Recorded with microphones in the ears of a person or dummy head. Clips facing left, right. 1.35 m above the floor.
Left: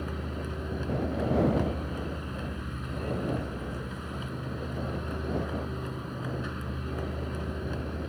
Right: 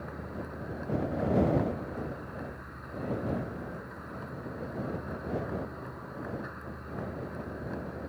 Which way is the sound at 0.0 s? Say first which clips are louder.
Left 4 dB; 40° left (ahead or behind).